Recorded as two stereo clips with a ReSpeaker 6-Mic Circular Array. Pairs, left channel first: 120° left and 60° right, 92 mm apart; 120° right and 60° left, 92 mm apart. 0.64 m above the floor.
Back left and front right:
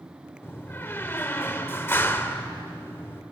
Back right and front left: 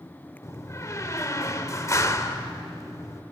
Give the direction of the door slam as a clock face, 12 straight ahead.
6 o'clock.